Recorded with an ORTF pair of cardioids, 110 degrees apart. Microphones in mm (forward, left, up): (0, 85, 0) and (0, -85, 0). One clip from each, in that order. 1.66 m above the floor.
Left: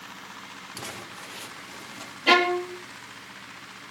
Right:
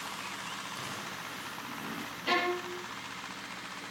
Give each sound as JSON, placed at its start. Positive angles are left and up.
{"t": 0.8, "sound": "crumpling", "azimuth_deg": 55, "distance_m": 6.0}
{"t": 2.3, "sound": "a violin", "azimuth_deg": 65, "distance_m": 1.9}